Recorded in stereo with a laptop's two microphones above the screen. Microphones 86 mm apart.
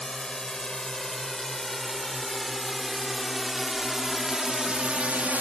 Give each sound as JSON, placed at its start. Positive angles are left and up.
{"t": 0.0, "sound": "a drone", "side_deg": 10}